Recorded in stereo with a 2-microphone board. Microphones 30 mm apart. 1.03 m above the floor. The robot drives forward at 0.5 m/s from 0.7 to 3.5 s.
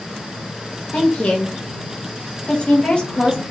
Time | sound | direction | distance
0.9 | a woman speaking | 50° left (ahead or behind) | 1.0 m